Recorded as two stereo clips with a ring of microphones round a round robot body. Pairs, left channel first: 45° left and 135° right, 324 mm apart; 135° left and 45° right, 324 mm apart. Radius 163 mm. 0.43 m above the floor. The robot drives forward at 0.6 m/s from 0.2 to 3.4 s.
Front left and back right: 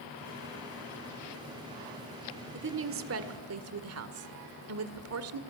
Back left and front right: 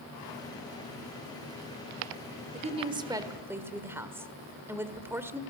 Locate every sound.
2.5 s a woman speaking: 100° right, 1.7 m; by 5.4 s 125° right, 1.8 m